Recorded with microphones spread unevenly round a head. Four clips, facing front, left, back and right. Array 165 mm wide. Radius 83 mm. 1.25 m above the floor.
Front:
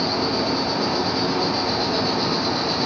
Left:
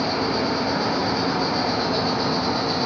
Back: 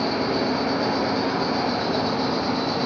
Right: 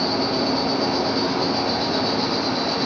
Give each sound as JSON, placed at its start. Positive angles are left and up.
{"t": 0.0, "sound": "an insect", "azimuth_deg": -120, "distance_m": 1.0}